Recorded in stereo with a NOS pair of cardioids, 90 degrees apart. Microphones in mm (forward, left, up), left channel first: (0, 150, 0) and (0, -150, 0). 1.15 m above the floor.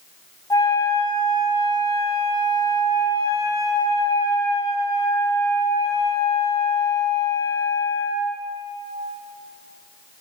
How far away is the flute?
About 3 m.